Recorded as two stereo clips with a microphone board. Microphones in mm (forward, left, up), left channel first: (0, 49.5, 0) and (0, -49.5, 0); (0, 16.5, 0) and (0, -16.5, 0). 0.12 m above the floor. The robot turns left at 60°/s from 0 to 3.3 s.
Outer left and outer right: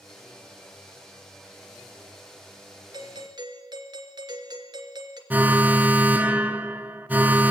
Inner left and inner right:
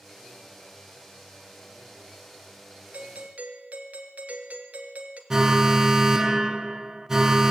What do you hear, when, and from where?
2.9 s a doorbell: 45° right (ahead or behind), 2.5 m
5.3 s an alarm: 15° right (ahead or behind), 1.5 m